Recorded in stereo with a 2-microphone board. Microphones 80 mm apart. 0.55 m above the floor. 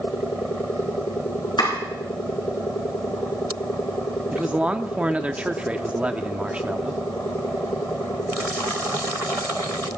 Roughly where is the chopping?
Left.